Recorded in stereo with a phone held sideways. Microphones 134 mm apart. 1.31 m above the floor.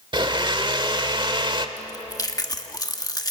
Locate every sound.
0.1 s a blender: 35° right (ahead or behind), 1.3 m
1.8 s chewing: 30° left (ahead or behind), 1.3 m